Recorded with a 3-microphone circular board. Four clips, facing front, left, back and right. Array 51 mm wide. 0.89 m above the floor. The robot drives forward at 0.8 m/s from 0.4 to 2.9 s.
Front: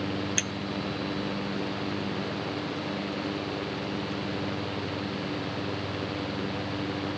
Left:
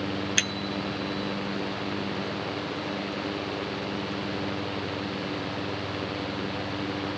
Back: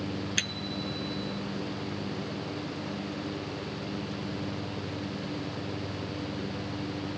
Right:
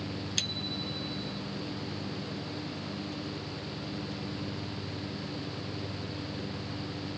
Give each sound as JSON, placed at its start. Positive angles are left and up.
{"t": 0.4, "sound": "a bicycle bell", "azimuth_deg": 100}